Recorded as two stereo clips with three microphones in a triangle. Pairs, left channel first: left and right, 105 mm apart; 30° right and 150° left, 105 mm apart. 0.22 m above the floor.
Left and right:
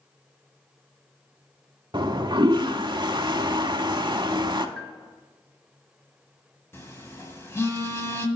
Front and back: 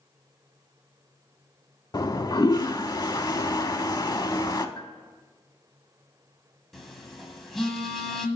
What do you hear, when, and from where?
1.9 s a toilet flushing: 70° right, 0.6 m
4.8 s a bell: 5° left, 1.1 m
6.7 s a phone buzzing: 60° left, 1.5 m